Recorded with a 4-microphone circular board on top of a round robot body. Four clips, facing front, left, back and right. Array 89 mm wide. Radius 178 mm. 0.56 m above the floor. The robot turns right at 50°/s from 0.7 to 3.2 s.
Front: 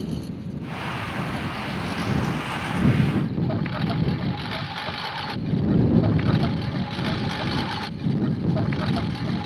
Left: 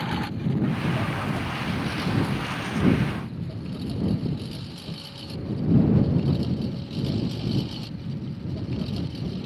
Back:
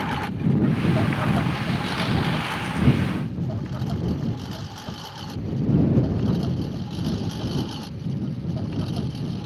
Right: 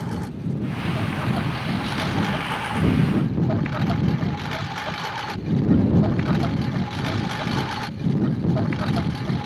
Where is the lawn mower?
165° left; by 9.5 s 55° right.